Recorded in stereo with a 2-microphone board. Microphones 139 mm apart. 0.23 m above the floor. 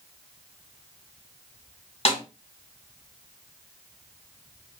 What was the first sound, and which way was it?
A snare drum, 45° left (ahead or behind).